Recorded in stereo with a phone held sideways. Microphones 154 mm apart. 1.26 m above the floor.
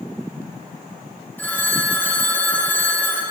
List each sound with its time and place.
1.4 s a phone ringing: 10° left (ahead or behind), 2.5 m